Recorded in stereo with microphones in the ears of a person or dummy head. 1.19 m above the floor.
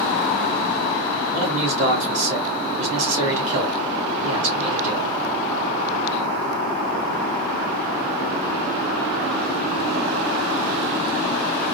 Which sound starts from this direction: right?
A man speaking, at 1.3 s.